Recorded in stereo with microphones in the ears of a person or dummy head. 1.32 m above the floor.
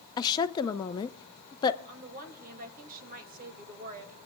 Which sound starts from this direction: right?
A woman speaking, at 1.9 s.